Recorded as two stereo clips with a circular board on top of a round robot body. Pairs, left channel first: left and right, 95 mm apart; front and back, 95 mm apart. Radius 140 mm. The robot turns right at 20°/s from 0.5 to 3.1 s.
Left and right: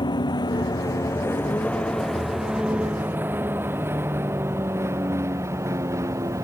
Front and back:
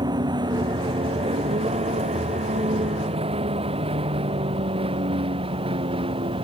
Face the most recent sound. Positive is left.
turn(degrees=-150)